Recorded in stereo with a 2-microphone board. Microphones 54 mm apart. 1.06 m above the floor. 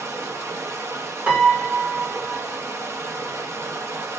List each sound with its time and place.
0.0 s running water: 70° right (ahead or behind), 1.0 m
1.3 s a piano: 30° right (ahead or behind), 1.5 m